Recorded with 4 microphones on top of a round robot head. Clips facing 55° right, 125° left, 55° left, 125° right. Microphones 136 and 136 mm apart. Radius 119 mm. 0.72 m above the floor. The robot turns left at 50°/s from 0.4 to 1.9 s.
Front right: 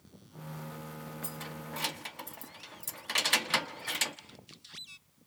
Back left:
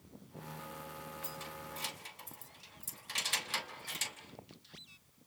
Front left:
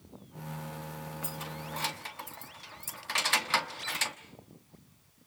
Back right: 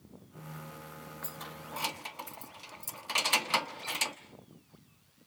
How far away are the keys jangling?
About 1.1 m.